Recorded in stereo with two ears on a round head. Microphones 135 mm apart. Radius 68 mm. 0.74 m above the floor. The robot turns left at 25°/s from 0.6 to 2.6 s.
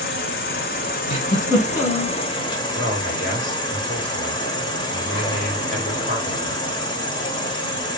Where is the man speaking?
65° left (ahead or behind), 1.7 m.